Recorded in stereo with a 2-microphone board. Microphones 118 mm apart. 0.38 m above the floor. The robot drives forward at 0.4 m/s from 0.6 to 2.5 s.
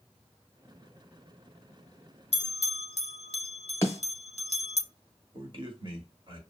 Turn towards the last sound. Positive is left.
turn(degrees=-45)  # may be behind; listen again after turning